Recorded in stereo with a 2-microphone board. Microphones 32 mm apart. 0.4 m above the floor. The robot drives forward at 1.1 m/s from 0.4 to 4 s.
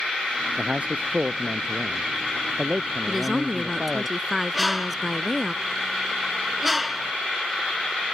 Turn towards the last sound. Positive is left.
turn(degrees=-5)  # may be behind; listen again after turning